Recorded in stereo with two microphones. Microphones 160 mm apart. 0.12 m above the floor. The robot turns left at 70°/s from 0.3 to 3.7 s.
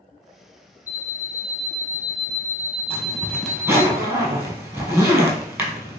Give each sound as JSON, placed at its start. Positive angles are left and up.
{"t": 0.9, "sound": "an alarm clock", "azimuth_deg": -85, "distance_m": 0.8}
{"t": 2.9, "sound": "a zipper", "side_deg": 35, "distance_m": 1.0}